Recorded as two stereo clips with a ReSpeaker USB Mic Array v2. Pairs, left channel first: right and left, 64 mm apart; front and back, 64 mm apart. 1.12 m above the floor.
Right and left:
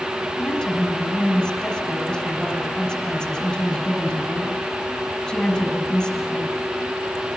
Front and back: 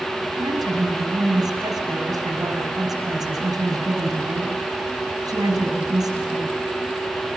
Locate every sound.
0.4 s a woman speaking: 165° right, 6.5 m